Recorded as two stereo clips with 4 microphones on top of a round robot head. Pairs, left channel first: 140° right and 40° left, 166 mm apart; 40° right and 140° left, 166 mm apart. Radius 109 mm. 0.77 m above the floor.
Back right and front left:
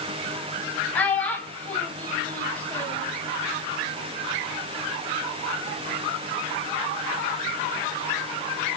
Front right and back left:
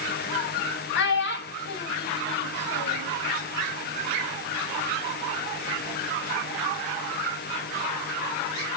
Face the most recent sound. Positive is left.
turn(degrees=-55)